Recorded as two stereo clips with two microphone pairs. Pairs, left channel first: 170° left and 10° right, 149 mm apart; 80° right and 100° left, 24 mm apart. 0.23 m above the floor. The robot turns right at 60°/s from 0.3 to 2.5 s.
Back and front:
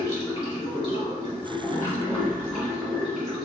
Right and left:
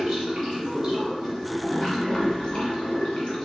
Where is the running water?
125° left, 1.4 m; by 3.4 s 105° right, 1.4 m.